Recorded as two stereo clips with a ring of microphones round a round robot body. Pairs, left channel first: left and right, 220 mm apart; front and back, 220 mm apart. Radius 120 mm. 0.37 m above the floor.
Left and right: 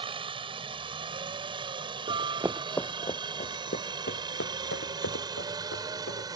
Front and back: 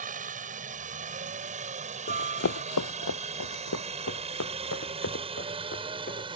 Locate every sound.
0.0 s a helicopter: 145° right; by 6.4 s 140° right
2.1 s running footsteps: 25° right; by 6.4 s 50° left